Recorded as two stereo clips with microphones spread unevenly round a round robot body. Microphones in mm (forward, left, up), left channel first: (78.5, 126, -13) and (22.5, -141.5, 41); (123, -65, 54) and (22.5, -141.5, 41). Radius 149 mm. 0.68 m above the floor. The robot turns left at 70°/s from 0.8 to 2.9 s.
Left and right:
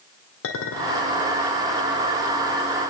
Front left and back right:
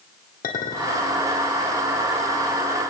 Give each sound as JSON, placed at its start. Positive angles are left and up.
{"t": 0.4, "sound": "a clink", "azimuth_deg": 45, "distance_m": 1.6}